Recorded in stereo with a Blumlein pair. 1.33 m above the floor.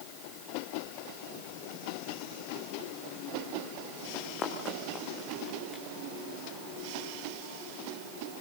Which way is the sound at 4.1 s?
25° left.